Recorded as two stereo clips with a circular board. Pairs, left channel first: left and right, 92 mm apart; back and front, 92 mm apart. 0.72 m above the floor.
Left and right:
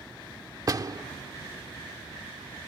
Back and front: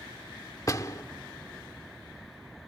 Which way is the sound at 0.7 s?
130° right.